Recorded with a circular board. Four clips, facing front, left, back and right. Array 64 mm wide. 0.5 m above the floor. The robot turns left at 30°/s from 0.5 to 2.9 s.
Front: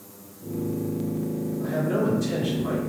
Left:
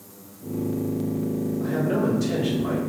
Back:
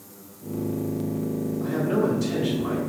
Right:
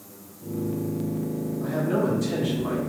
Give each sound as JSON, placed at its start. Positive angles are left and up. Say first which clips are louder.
{"t": 1.6, "sound": "a man speaking", "louder": "even, back 1 dB", "azimuth_deg": 120, "distance_m": 1.5}